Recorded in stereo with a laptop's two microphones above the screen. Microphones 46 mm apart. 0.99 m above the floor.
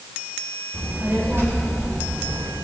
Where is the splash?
I don't hear a splash.